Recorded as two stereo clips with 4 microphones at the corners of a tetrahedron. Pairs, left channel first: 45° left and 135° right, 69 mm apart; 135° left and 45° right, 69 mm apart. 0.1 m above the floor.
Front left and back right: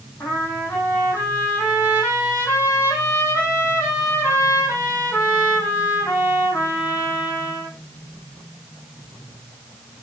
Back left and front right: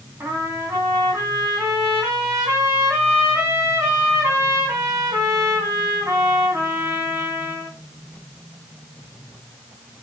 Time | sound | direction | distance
0.2 | a trumpet | 5° right | 4.5 m